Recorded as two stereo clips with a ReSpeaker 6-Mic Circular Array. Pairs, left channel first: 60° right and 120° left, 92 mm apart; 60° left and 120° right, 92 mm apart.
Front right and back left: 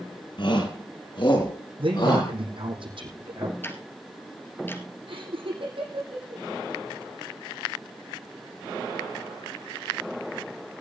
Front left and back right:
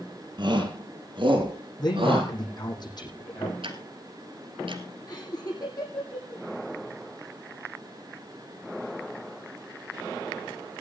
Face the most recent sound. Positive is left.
turn(degrees=105)